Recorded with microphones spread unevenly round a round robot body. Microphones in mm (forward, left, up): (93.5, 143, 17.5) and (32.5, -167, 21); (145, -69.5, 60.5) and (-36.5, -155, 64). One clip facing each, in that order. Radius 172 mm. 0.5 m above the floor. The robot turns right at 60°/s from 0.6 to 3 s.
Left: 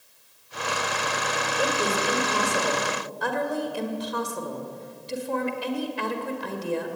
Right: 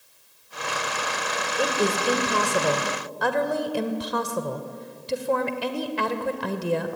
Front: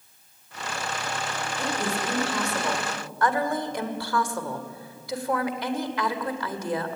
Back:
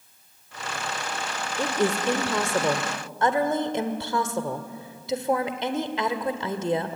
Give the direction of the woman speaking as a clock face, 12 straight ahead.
6 o'clock.